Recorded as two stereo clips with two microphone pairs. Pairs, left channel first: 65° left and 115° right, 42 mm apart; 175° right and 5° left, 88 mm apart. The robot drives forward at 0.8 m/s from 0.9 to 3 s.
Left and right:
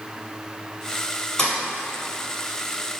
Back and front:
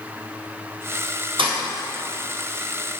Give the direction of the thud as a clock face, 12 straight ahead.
12 o'clock.